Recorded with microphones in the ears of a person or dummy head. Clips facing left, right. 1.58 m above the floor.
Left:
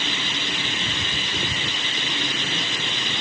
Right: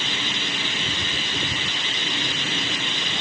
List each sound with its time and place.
Only background noise.